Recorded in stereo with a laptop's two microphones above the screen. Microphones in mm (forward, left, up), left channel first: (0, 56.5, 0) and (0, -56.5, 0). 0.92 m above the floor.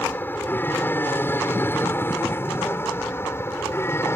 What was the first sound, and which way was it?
An aircraft, 20° left (ahead or behind).